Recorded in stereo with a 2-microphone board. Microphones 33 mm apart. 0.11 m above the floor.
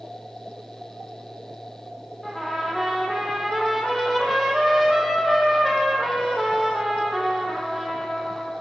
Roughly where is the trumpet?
Centre.